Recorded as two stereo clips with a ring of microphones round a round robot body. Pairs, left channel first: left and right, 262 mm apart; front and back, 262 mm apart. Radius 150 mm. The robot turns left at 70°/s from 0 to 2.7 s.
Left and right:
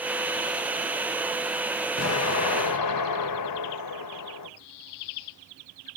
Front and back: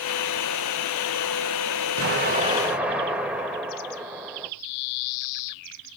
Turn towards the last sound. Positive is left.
turn(degrees=95)